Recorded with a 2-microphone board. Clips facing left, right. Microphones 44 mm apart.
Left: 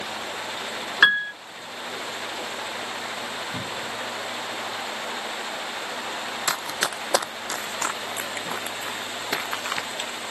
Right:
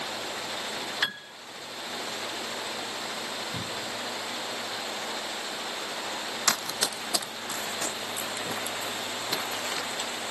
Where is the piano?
70° left (ahead or behind).